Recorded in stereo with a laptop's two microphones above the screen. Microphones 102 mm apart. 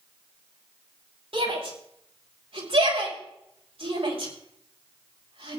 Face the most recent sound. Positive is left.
turn(degrees=-70)  # may be behind; listen again after turning